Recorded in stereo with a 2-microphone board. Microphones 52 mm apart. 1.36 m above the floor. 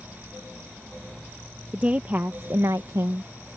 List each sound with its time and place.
1.7 s a woman speaking: 25° right (ahead or behind); by 3.3 s 70° right (ahead or behind)